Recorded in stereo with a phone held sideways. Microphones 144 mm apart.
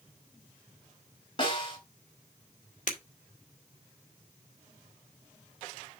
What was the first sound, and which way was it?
A snare drum, 35° left (ahead or behind).